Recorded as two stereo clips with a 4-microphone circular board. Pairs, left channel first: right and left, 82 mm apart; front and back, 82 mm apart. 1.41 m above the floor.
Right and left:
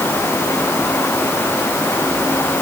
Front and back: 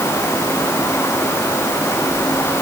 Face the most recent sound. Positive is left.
No sound to turn to.